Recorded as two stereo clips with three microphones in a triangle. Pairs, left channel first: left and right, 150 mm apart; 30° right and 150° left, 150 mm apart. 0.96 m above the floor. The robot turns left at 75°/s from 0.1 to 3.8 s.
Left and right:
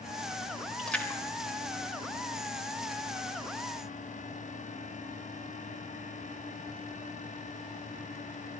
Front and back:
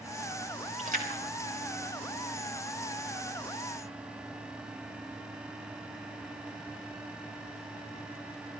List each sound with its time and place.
0.8 s a splash: 175° right, 3 m; by 2.8 s 30° left, 3 m